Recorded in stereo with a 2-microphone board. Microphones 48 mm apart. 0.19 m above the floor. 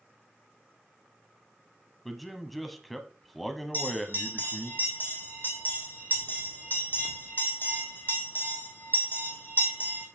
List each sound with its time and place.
2.0 s a man speaking: centre (ahead or behind), 1.0 m
3.7 s a bell: 40° left (ahead or behind), 2.0 m